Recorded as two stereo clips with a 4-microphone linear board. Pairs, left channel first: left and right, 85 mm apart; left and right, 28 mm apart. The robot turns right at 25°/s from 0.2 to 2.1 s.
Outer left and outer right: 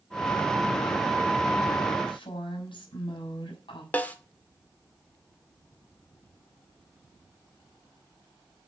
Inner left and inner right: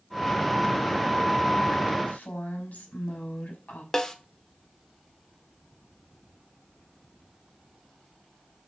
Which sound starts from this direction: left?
A woman speaking, at 2.1 s.